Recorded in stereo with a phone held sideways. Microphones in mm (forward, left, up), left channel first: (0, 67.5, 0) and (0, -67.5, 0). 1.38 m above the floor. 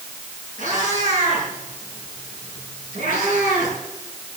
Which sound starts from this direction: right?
A cat meowing, at 0.6 s.